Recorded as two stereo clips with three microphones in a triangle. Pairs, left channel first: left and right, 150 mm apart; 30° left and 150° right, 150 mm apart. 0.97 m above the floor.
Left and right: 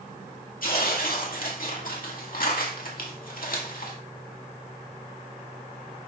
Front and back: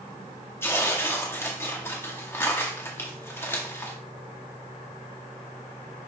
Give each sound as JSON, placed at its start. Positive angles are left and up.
{"t": 0.6, "sound": "tearing paper", "azimuth_deg": 105, "distance_m": 2.0}